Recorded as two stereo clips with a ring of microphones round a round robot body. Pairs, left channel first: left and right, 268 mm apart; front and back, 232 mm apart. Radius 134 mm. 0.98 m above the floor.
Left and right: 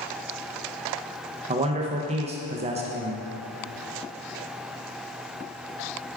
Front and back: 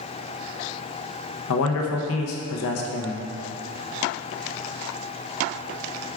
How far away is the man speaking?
About 0.5 m.